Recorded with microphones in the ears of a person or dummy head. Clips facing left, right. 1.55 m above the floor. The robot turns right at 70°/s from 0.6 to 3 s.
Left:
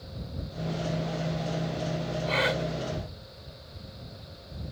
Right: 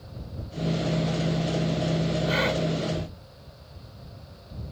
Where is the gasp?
10° right (ahead or behind); by 2.6 s 15° left (ahead or behind).